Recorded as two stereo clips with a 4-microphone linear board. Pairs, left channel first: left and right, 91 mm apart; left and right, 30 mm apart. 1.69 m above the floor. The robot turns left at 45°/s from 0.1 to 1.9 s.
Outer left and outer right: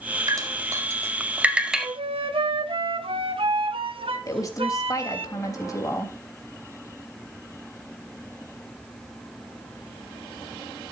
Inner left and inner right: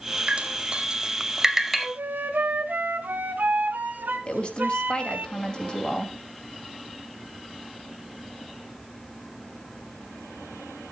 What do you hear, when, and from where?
0.3 s dripping: 40° right (ahead or behind), 1.5 m; by 1.9 s centre (ahead or behind), 1.5 m
1.8 s a flute: 70° right (ahead or behind), 1.8 m; by 5.3 s 75° right (ahead or behind), 1.8 m
4.3 s a woman speaking: 35° left (ahead or behind), 3 m